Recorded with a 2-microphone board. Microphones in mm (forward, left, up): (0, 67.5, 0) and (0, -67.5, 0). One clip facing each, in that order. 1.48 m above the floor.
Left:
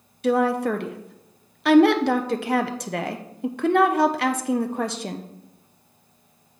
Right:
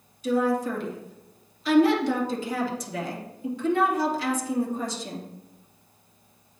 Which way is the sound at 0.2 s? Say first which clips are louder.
Left 3 dB; 70° left (ahead or behind).